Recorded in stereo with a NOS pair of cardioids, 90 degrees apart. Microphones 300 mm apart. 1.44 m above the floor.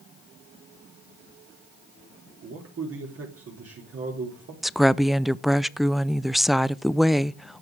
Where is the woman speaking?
Straight ahead, 0.5 m.